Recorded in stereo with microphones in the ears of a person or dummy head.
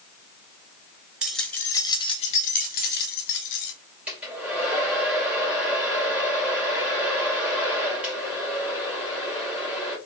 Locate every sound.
1.2 s keys jangling: 5° right (ahead or behind), 0.9 m; by 3.7 s 65° left (ahead or behind), 1.5 m
4.1 s a hair dryer: 5° right (ahead or behind), 2.5 m